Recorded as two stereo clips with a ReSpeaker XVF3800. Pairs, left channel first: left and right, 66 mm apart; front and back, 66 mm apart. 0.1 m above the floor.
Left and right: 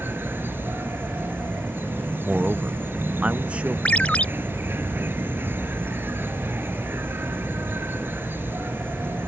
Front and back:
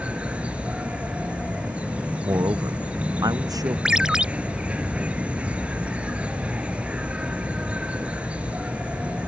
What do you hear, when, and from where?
0.0 s an insect: 120° right
2.2 s a man speaking: 160° right
3.9 s a ringtone: 120° left